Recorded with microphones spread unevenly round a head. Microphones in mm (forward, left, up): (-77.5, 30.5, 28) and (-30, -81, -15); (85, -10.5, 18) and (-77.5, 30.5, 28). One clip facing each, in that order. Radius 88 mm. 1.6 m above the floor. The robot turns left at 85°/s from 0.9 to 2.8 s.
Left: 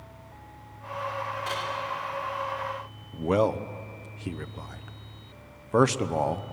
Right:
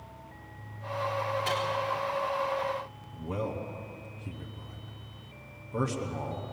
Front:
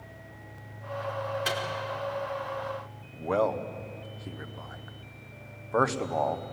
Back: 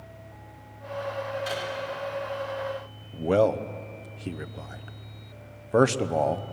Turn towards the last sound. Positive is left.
turn(degrees=105)